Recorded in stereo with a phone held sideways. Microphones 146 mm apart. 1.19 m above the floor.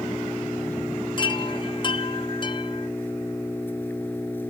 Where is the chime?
35° left (ahead or behind).